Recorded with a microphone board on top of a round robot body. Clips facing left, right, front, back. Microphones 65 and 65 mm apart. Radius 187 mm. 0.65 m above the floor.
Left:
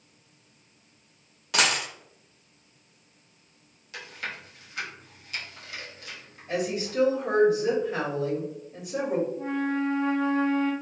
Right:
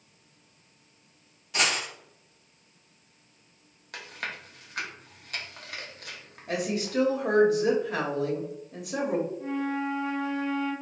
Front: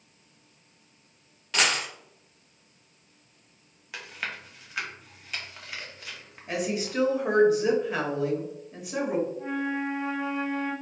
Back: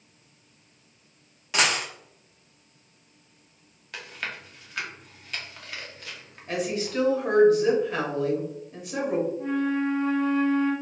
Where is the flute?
75° left, 0.7 m.